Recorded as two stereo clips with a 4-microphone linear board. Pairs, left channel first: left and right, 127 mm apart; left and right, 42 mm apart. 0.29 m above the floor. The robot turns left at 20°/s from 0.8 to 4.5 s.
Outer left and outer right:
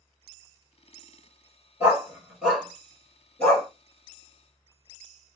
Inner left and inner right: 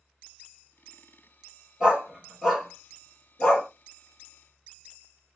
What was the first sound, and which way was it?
A dog barking, 20° right (ahead or behind).